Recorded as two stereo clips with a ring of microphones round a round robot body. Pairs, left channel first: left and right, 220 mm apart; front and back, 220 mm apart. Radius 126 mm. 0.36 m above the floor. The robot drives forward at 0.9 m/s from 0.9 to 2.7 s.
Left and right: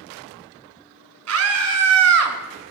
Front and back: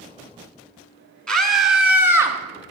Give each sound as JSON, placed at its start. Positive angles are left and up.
{"t": 1.3, "sound": "a scream", "azimuth_deg": -85, "distance_m": 3.5}